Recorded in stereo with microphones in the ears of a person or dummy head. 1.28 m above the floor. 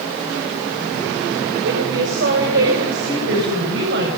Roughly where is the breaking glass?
No breaking glass in this recording.